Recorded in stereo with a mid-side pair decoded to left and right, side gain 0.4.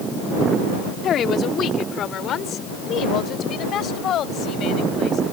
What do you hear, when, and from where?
1.0 s a woman speaking: 65° left; by 5.2 s 70° left